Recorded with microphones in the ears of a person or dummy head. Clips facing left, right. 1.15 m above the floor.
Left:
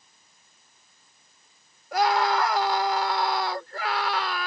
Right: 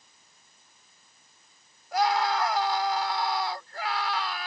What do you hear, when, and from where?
1.9 s a scream: 55° left (ahead or behind)